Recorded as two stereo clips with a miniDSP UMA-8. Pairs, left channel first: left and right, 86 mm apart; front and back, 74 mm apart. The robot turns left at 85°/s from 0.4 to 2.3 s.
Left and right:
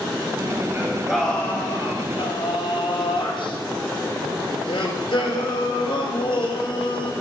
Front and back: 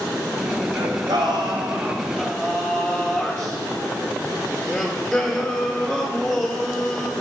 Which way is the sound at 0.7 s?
145° right.